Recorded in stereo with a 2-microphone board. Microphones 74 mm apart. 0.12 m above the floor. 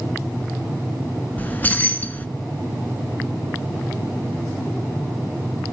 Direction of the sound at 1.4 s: 25° left (ahead or behind).